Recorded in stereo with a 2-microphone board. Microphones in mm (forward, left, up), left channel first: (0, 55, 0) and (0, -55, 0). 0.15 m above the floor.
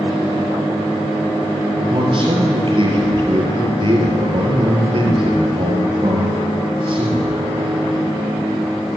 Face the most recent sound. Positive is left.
turn(degrees=-50)  # may be behind; listen again after turning